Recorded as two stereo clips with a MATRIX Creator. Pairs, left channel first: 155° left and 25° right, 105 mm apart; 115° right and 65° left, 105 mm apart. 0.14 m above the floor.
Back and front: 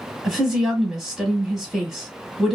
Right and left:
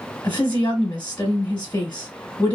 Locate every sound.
0.2 s a woman speaking: 115° right, 1.2 m